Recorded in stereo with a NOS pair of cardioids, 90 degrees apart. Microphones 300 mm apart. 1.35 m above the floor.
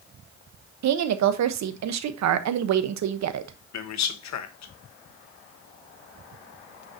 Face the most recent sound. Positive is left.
turn(degrees=65)